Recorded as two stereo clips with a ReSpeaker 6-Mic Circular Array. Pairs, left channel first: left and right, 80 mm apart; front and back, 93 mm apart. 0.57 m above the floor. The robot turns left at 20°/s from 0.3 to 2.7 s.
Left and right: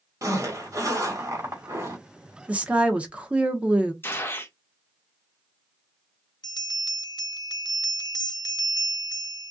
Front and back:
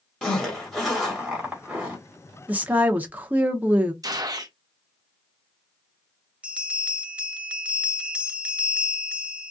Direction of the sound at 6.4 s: 105° left.